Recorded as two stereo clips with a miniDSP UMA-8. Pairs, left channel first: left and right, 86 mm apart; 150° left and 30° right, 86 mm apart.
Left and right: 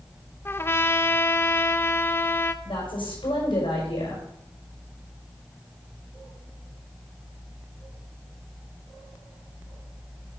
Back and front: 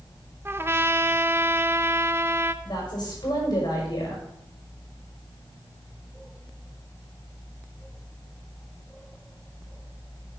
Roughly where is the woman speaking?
Left.